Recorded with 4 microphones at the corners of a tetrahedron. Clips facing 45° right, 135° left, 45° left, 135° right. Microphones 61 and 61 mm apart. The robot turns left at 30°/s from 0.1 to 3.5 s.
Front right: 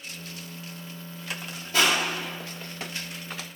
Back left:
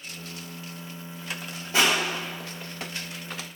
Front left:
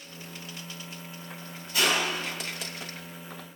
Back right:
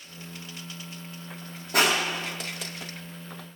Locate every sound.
1.7 s crushing: 155° right, 1.9 m; by 2.4 s straight behind, 1.9 m